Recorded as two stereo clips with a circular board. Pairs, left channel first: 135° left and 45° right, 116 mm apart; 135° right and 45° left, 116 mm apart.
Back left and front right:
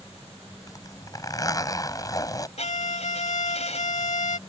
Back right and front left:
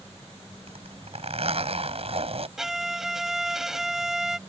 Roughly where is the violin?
Behind left.